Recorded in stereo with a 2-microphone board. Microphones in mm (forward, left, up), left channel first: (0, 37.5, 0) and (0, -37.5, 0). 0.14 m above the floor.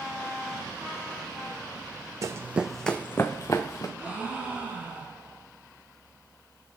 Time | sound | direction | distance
2.2 | running footsteps | 45° right (ahead or behind) | 0.6 m
4.0 | a gasp | 20° right (ahead or behind) | 1.6 m